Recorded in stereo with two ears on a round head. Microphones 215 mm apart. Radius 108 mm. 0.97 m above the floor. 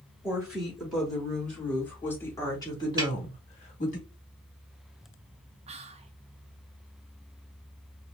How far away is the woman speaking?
About 3 m.